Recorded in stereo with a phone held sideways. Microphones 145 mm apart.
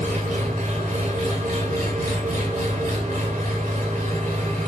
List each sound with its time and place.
0.0 s an engine running: 70° right (ahead or behind), 1.9 m